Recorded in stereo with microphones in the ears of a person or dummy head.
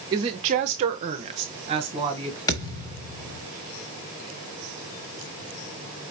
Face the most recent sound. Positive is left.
turn(degrees=20)  # may be behind; listen again after turning